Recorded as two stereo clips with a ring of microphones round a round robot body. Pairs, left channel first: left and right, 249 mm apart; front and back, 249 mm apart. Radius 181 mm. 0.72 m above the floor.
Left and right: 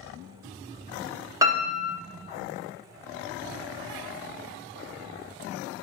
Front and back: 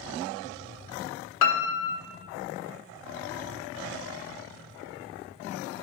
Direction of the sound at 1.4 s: 10° right.